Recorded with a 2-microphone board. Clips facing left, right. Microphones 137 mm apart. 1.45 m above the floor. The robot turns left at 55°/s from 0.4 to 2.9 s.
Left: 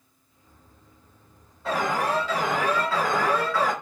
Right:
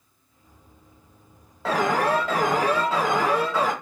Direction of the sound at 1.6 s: 90° right.